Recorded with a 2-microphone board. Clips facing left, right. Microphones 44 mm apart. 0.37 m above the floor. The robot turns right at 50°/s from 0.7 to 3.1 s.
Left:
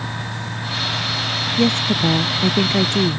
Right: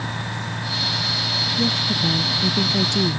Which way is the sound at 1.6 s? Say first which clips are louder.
Left 6 dB; 80° left.